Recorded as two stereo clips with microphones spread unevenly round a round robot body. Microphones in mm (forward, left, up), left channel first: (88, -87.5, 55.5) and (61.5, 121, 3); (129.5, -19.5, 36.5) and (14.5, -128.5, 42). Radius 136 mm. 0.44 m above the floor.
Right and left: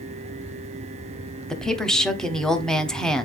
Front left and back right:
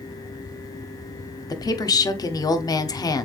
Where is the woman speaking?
30° left, 1.0 m.